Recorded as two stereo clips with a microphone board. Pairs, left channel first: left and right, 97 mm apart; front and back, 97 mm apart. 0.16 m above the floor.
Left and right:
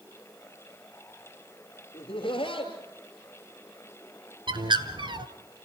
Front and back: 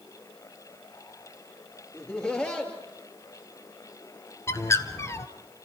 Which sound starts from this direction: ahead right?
A bird, at 4.5 s.